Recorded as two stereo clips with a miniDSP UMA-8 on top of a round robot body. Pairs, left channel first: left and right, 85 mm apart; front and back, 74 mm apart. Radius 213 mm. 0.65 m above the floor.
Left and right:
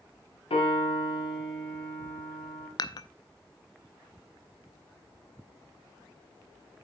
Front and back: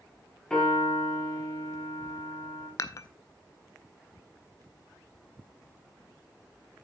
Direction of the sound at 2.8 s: 50° left.